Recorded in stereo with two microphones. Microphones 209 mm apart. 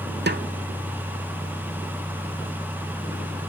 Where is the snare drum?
55° right (ahead or behind), 0.6 m.